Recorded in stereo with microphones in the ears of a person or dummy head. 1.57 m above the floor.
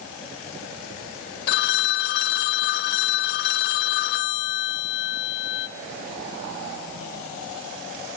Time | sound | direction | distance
1.5 | a phone ringing | 60° left (ahead or behind) | 1.3 m